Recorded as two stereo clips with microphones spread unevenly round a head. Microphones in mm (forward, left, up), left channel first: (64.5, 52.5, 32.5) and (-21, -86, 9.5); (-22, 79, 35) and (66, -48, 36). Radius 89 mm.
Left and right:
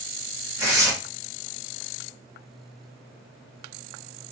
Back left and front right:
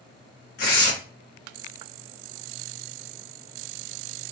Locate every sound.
0.6 s tearing paper: 160° left, 1.2 m